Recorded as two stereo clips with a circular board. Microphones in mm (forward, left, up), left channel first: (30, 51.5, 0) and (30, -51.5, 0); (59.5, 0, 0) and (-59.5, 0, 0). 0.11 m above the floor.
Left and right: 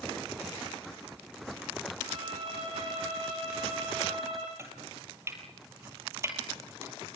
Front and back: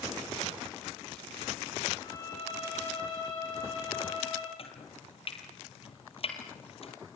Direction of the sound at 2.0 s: 55° right.